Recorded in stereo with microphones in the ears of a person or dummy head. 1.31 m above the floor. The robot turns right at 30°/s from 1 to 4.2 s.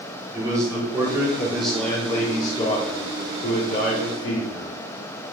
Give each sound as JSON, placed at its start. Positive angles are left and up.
{"t": 0.3, "sound": "a man speaking", "azimuth_deg": -15, "distance_m": 4.5}